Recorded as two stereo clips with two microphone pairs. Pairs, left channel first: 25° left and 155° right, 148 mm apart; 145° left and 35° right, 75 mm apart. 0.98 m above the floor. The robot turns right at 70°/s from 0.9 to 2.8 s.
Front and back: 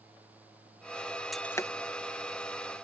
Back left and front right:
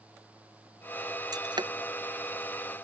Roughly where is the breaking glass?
Ahead right.